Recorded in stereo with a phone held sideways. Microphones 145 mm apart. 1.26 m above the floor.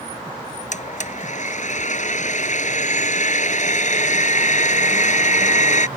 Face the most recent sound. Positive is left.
turn(degrees=60)  # may be behind; listen again after turning